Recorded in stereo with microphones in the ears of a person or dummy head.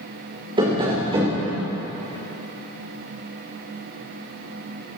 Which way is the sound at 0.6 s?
20° right (ahead or behind).